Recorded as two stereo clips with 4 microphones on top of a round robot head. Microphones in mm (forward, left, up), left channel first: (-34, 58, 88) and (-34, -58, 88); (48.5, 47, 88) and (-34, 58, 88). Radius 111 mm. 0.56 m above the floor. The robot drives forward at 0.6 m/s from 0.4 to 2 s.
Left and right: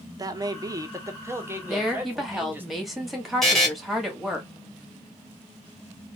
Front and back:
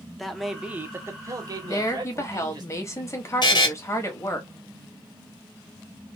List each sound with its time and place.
0.2 s a man speaking: 95° right, 0.6 m; by 2.6 s 165° right, 1.2 m
1.6 s a woman speaking: straight ahead, 1.3 m
3.4 s a buzzer: straight ahead, 1.2 m